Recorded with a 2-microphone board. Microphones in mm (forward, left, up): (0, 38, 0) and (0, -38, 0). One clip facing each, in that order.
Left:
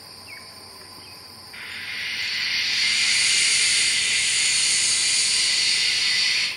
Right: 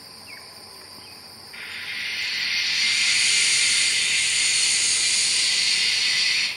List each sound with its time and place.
1.5 s frying: centre (ahead or behind), 1.7 m